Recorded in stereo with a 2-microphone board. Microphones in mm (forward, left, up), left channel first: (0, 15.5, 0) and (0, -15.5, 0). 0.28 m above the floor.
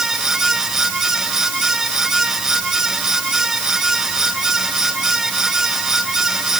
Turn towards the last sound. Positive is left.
No sound to turn to.